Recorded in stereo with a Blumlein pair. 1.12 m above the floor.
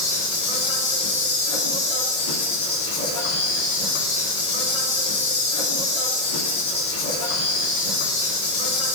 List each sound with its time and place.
0.0 s an insect: 50° left, 3 m